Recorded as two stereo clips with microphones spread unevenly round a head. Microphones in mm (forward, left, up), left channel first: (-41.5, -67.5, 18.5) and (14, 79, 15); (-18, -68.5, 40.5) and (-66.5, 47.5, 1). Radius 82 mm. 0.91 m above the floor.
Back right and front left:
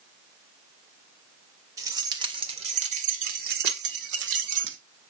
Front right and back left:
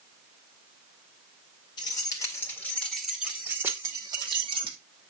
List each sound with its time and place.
1.8 s keys jangling: straight ahead, 2 m; by 4.8 s 60° left, 2 m